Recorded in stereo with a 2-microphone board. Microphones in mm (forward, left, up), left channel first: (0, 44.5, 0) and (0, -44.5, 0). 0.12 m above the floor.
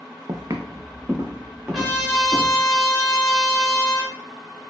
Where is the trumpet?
Centre (ahead or behind), 0.9 m.